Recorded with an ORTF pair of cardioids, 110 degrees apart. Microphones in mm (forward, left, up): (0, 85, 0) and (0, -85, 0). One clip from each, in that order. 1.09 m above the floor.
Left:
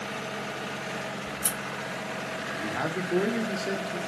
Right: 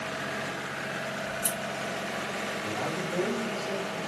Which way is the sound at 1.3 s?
20° left.